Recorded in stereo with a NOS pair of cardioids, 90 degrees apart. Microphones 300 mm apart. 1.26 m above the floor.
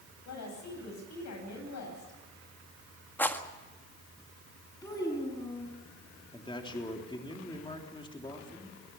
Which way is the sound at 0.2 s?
65° left.